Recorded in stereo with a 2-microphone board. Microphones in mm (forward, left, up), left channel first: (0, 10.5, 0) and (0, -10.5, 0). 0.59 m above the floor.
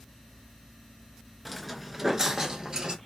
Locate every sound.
1.4 s footsteps: 5° left (ahead or behind), 0.5 m; by 3.0 s 35° right (ahead or behind), 0.8 m